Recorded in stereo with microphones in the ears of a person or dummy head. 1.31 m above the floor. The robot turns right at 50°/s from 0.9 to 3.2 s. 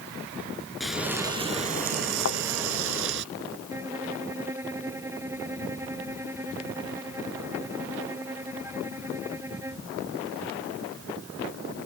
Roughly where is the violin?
Centre.